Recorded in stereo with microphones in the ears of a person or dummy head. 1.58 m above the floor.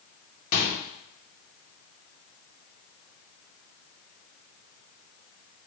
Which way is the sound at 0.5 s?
55° left (ahead or behind).